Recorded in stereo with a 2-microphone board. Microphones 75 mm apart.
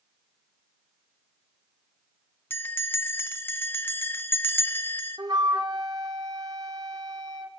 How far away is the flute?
About 1.4 m.